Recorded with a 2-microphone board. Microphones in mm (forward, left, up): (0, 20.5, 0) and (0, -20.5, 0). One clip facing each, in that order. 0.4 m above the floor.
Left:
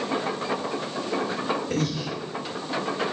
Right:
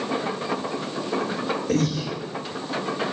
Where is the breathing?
80° right, 6.5 m.